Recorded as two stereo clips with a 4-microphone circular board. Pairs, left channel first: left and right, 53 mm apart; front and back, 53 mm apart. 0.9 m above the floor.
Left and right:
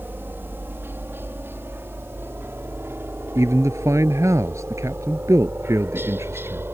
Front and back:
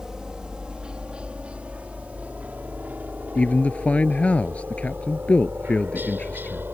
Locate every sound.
0.0 s a helicopter: 105° right; by 6.7 s 130° right
3.4 s a man speaking: 65° right